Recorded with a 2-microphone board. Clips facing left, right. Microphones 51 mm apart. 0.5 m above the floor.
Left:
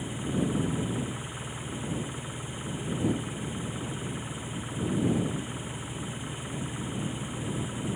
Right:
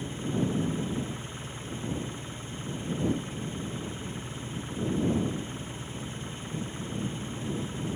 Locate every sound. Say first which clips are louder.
0.0 s an engine running: even; 10° left (ahead or behind)